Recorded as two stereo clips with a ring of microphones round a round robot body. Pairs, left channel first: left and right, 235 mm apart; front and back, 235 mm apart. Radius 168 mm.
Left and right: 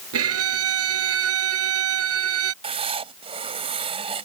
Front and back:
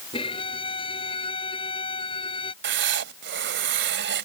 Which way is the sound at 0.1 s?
75° right.